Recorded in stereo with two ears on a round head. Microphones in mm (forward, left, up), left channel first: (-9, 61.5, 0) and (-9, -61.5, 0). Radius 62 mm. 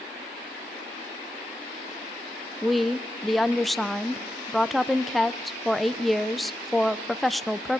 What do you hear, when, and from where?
2.6 s a woman speaking: centre (ahead or behind), 0.8 m